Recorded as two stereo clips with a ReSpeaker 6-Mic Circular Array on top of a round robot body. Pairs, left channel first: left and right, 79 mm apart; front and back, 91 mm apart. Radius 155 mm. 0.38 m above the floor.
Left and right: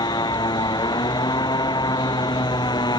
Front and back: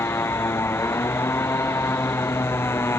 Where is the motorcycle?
65° left.